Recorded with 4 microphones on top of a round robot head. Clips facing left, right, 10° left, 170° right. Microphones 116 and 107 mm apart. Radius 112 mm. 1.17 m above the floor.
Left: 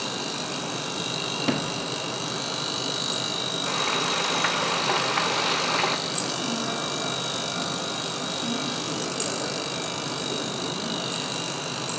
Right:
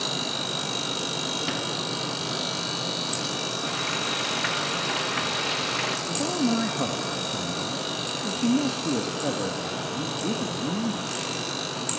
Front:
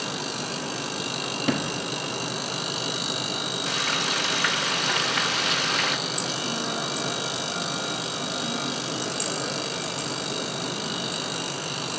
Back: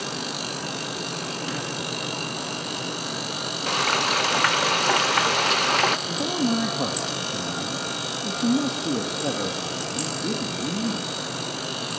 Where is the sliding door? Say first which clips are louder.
Left 3 dB, front 4 dB; 40° left, 1.4 m.